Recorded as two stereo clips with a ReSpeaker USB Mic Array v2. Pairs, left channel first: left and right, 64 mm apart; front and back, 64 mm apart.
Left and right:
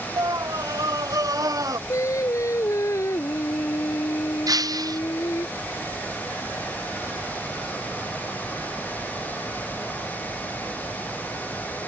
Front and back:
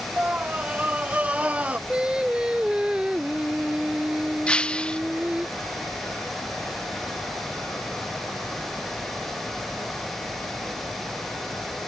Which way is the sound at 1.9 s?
105° left.